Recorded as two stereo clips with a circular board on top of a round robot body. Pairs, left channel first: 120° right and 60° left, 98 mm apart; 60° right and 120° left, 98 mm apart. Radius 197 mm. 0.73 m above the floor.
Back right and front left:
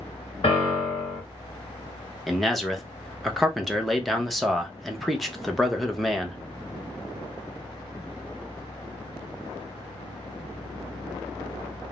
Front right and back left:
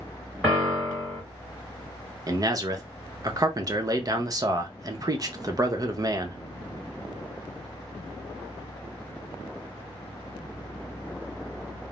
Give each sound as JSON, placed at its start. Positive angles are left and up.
{"t": 0.4, "sound": "a piano", "azimuth_deg": -150, "distance_m": 1.1}
{"t": 2.3, "sound": "a man speaking", "azimuth_deg": 150, "distance_m": 0.9}